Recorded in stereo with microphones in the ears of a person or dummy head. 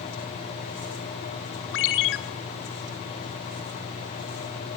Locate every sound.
1.7 s a ringtone: 65° left (ahead or behind), 2.0 m